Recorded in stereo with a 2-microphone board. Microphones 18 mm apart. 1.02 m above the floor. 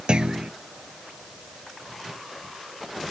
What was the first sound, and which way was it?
A clunk, 65° right (ahead or behind).